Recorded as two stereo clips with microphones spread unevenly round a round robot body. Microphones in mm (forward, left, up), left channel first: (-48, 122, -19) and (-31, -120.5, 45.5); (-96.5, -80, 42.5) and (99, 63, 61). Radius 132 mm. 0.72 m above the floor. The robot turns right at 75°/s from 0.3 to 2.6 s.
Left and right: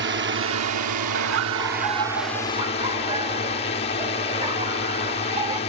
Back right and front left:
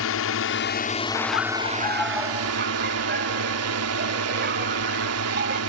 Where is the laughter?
125° right; by 5.6 s 15° right.